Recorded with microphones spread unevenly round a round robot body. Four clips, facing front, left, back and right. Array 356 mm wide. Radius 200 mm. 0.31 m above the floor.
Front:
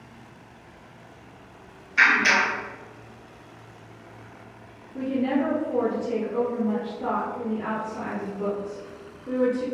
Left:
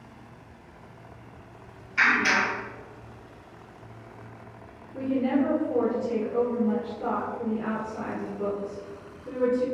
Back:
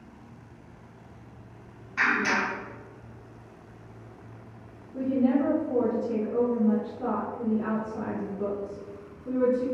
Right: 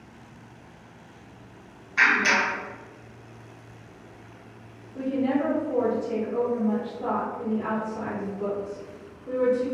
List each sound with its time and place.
2.0 s a clap: 145° right, 1.7 m
4.9 s a woman speaking: 145° left, 1.8 m